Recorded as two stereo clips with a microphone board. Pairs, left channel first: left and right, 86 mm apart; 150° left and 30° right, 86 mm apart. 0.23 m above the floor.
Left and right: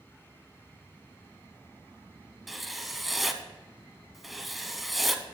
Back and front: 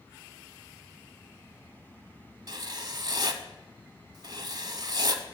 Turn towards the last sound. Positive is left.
turn(degrees=0)